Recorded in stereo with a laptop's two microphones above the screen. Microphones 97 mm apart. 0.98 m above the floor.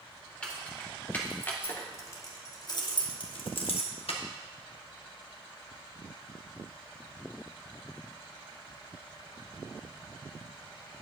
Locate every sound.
0.4 s keys jangling: 10° left (ahead or behind), 2 m; by 4.2 s 85° left, 1.3 m